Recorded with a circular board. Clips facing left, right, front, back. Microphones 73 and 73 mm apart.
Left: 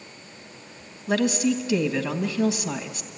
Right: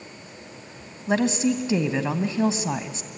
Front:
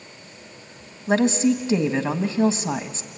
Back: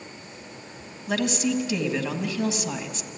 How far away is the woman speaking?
About 1.4 m.